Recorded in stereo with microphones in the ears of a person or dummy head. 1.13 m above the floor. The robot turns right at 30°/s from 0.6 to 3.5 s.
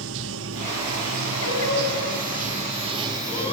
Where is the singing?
85° left, 4.5 m; by 3.5 s 145° left, 4.5 m.